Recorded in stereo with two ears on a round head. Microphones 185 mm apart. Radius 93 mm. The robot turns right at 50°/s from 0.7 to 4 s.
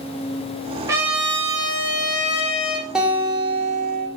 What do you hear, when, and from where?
0.9 s a trumpet: 15° right, 2 m; by 2.9 s 85° left, 2 m
3.0 s a guitar: 175° right, 1.9 m; by 4.1 s 125° right, 1.9 m